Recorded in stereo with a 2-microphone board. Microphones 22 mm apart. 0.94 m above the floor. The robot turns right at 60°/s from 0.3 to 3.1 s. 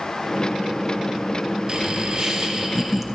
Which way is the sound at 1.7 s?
100° right.